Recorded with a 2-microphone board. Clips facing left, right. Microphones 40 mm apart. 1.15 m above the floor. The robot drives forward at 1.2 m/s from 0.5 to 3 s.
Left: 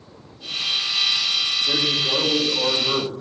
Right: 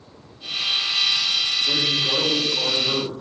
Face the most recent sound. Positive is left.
turn(degrees=55)  # may be behind; listen again after turning